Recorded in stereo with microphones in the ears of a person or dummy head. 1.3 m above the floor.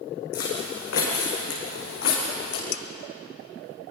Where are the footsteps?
65° left (ahead or behind), 5.5 m; by 2.6 s 75° left (ahead or behind), 6 m.